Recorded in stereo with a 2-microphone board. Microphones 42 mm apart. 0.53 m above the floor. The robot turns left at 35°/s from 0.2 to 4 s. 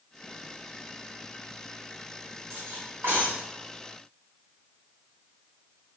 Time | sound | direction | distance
2.5 | cutlery clinking | 60° right (ahead or behind) | 1.1 m